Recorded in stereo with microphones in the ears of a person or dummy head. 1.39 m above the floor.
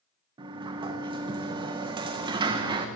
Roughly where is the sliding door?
Right.